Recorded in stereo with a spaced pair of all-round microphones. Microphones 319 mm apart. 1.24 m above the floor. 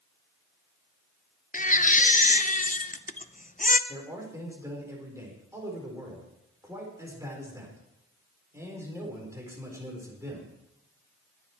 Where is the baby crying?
25° left (ahead or behind), 0.6 m.